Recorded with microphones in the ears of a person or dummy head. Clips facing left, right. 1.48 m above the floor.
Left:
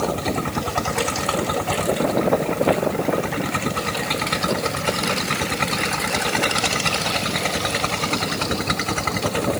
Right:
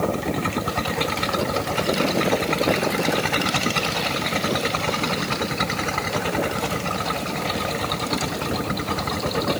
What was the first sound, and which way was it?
Only background noise.